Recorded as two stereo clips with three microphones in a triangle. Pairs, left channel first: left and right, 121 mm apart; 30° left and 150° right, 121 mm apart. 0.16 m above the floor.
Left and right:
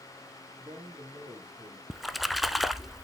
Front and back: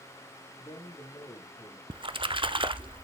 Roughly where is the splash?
Behind.